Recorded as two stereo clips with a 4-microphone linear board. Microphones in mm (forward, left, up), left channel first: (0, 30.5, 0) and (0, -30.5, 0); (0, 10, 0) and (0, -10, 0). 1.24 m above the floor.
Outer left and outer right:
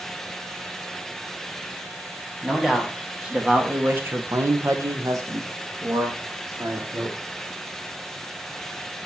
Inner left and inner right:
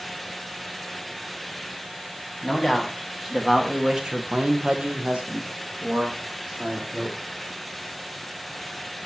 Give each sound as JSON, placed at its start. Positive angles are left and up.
{"t": 2.4, "sound": "a man speaking", "side_deg": -10, "distance_m": 2.5}